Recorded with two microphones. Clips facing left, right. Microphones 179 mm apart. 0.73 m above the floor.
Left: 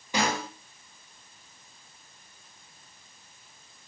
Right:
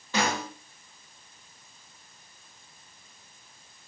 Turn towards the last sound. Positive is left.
turn(degrees=15)  # may be behind; listen again after turning